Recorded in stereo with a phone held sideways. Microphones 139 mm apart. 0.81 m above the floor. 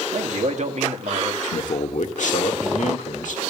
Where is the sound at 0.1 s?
60° right (ahead or behind), 1.6 m.